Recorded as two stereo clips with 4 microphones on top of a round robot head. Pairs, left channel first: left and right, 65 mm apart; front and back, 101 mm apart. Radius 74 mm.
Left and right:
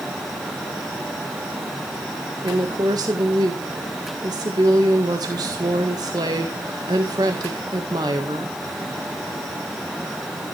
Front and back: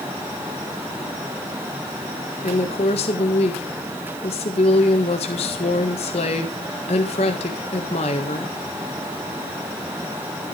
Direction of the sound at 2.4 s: 40° right.